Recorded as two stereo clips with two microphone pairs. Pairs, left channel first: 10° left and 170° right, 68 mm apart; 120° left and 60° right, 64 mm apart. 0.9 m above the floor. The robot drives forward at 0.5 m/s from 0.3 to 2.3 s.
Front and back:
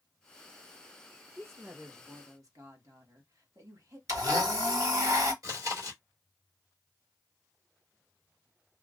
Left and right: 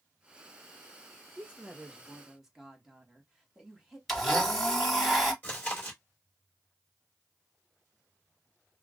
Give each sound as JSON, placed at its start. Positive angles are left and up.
{"t": 1.4, "sound": "a woman speaking", "azimuth_deg": -120, "distance_m": 1.0}
{"t": 4.1, "sound": "a blender", "azimuth_deg": -150, "distance_m": 1.3}
{"t": 5.4, "sound": "chewing", "azimuth_deg": -175, "distance_m": 1.9}